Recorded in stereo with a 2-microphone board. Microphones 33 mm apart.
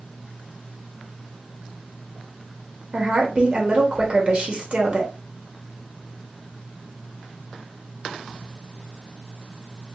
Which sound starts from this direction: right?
A woman speaking, at 2.9 s.